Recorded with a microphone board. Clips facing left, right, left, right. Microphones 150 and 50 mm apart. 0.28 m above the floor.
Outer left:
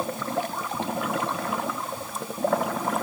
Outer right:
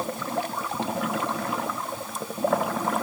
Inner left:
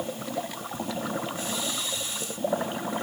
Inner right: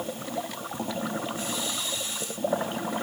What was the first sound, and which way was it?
Only background noise.